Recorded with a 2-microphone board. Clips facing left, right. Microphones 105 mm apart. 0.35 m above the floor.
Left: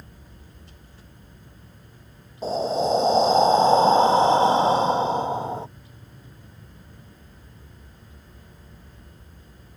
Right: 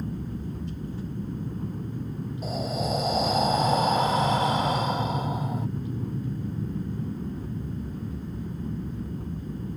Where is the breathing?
30° left (ahead or behind).